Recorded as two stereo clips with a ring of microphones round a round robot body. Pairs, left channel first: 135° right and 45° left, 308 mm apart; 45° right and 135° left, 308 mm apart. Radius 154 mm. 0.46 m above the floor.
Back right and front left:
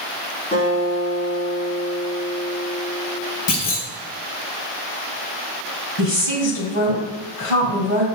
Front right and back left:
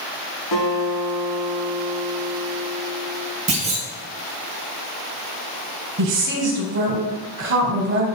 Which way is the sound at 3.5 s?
155° right.